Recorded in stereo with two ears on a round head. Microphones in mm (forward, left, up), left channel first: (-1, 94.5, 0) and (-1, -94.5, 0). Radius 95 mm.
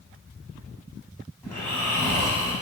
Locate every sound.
1.4 s snoring: 10° left (ahead or behind), 1.0 m